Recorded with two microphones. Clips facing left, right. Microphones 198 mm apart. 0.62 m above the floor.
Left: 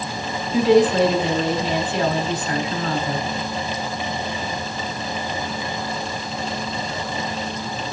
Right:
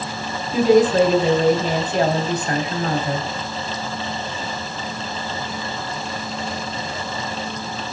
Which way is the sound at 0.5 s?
40° right (ahead or behind).